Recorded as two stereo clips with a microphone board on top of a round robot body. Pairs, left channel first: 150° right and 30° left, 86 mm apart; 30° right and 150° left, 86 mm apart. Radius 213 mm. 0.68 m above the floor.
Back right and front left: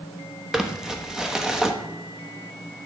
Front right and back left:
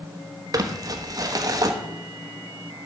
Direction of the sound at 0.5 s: 110° left.